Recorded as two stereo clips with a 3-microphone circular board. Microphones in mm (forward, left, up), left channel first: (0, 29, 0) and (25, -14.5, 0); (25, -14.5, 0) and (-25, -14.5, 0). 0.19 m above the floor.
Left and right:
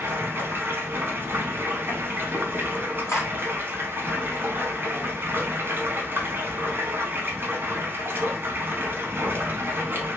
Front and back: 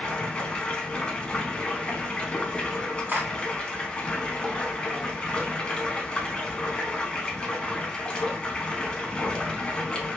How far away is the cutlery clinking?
About 1.9 m.